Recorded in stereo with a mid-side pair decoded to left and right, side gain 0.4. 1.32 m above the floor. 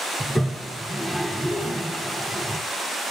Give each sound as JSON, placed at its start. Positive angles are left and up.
{"t": 0.2, "sound": "a toilet flushing", "azimuth_deg": 0, "distance_m": 0.9}